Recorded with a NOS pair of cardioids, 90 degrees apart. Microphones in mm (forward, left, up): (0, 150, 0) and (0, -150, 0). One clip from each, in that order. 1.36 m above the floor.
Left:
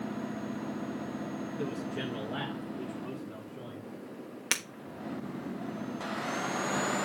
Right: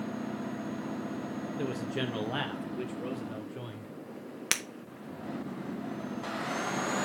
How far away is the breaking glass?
About 1.3 m.